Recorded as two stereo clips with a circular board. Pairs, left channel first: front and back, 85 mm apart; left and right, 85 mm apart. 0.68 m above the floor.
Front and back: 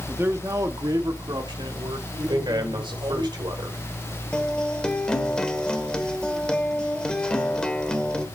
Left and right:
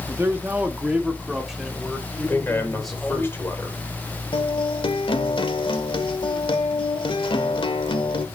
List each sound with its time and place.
0.1 s a man speaking: 130° right, 1.4 m; by 3.3 s 175° left, 4 m
2.3 s a man speaking: 155° left, 3 m
4.3 s a guitar: 80° left, 1.4 m